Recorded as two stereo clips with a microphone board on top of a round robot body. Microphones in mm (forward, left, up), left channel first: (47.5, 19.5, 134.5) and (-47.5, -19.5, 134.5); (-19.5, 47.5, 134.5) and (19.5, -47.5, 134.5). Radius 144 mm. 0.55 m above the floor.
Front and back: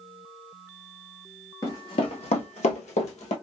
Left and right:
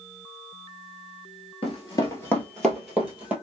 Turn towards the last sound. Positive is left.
turn(degrees=10)